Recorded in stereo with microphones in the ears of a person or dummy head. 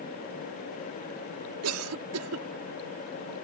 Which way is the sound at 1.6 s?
85° right.